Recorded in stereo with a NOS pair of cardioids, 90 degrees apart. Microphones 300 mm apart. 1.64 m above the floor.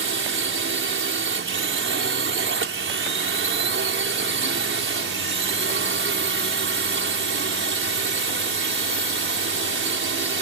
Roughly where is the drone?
Ahead right.